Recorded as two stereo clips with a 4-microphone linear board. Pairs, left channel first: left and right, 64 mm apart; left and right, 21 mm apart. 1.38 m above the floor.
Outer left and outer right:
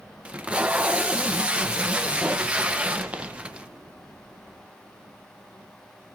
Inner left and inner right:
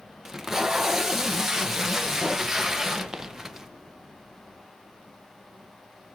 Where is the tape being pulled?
20° right (ahead or behind), 0.7 m.